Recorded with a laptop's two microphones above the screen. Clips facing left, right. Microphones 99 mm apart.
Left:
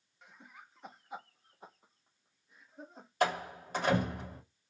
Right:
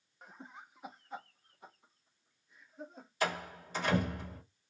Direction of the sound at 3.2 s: 55° left (ahead or behind).